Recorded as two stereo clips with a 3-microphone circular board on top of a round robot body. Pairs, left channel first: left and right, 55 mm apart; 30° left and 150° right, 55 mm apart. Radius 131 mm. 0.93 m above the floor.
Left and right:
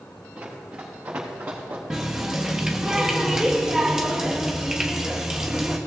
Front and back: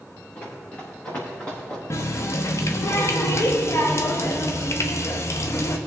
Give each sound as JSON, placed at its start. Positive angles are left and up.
{"t": 0.3, "sound": "running footsteps", "azimuth_deg": -25, "distance_m": 4.0}
{"t": 1.9, "sound": "a running tap", "azimuth_deg": -10, "distance_m": 0.7}